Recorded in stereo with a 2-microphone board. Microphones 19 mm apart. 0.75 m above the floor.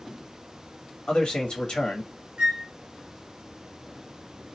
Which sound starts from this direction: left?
A man speaking, at 1.1 s.